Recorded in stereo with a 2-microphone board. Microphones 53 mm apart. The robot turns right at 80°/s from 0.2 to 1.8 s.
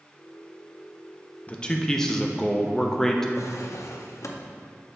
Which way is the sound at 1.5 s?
30° left (ahead or behind).